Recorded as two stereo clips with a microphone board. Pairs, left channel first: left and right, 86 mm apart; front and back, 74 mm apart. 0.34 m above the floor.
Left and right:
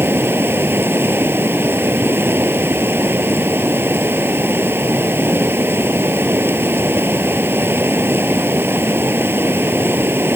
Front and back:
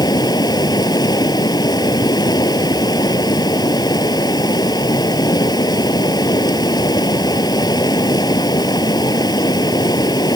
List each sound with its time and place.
0.0 s running water: 25° right